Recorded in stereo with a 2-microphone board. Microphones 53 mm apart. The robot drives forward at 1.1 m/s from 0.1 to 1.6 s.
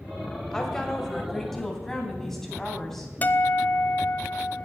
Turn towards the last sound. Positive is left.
turn(degrees=30)  # may be behind; listen again after turning